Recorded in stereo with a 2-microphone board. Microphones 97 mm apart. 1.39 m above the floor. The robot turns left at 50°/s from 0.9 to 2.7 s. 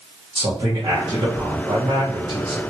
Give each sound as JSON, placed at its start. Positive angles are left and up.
{"t": 0.3, "sound": "a man speaking", "azimuth_deg": -55, "distance_m": 1.6}